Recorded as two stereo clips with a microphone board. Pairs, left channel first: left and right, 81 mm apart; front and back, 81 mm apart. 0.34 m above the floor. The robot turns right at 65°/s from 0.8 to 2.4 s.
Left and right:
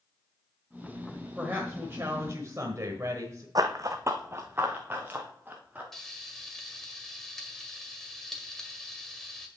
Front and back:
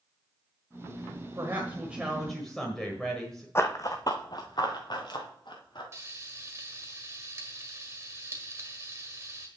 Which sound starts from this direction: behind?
Frying, at 5.9 s.